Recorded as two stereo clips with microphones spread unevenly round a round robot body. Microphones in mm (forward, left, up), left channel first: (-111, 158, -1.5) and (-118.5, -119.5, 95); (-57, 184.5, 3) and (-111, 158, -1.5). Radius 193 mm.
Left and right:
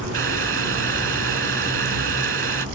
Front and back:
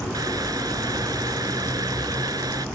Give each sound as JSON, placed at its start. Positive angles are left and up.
{"t": 0.1, "sound": "boiling", "azimuth_deg": -140}